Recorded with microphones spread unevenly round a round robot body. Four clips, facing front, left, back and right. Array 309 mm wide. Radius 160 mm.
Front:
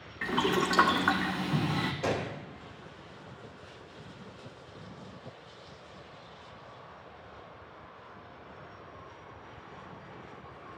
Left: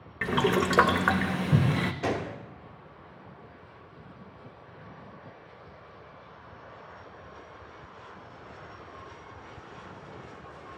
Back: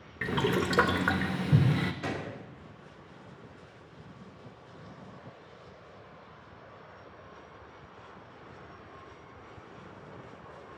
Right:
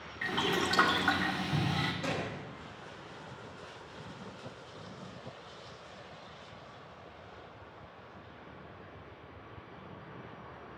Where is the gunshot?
100° left, 1.9 m.